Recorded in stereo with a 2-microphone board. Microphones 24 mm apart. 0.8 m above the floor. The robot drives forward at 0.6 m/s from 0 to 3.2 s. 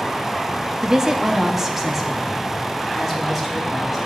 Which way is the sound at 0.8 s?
30° right (ahead or behind).